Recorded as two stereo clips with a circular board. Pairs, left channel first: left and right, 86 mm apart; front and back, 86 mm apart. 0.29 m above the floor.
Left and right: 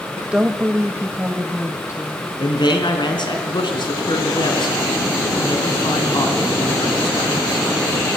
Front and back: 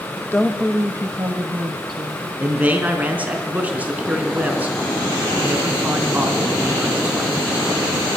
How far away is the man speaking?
About 3 m.